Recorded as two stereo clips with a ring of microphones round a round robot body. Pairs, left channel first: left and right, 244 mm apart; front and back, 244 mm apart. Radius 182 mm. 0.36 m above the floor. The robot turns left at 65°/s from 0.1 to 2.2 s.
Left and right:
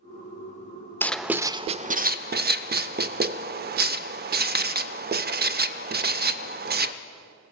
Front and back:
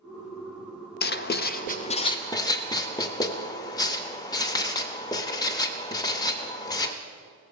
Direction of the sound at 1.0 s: 10° left.